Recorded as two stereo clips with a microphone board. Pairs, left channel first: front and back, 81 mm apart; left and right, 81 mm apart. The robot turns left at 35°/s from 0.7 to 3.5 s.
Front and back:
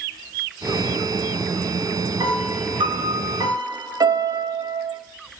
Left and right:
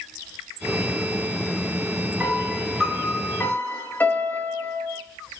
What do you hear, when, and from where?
2.2 s a piano: 155° right, 0.6 m; by 5.0 s 160° left, 0.6 m